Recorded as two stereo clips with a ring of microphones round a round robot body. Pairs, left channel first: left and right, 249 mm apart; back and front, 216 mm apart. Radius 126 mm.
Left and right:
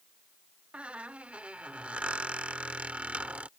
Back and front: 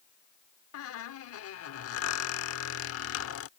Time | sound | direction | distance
0.7 | a squeak | 175° right | ?